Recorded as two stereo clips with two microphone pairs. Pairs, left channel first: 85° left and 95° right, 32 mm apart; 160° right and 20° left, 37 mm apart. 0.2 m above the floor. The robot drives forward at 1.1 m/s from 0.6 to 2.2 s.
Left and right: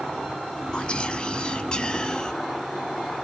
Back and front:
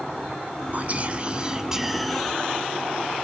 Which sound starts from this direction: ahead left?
Whispering, at 0.7 s.